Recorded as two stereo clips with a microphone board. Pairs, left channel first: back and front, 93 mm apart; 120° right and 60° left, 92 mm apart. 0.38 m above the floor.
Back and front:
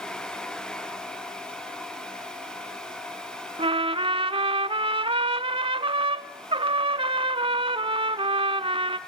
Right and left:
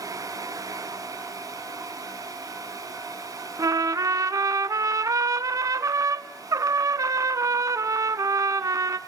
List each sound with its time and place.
3.6 s a trumpet: 10° left, 0.6 m